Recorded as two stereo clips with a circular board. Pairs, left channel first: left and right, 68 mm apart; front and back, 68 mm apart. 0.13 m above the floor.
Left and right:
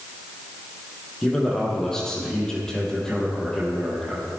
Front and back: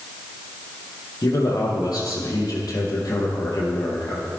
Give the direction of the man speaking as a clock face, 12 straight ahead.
12 o'clock.